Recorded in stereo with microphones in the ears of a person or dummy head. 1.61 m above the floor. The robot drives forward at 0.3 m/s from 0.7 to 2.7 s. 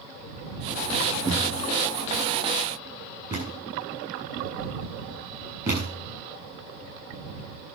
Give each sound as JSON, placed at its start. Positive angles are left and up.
{"t": 1.2, "sound": "a thud", "side_deg": -20, "distance_m": 7.0}